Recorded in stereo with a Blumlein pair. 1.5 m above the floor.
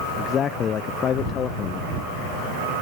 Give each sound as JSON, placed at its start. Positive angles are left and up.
{"t": 0.2, "sound": "a man speaking", "azimuth_deg": 25}